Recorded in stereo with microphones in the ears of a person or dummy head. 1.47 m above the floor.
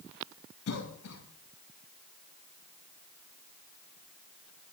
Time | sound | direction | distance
0.7 | a cough | 75° left (ahead or behind) | 2.5 m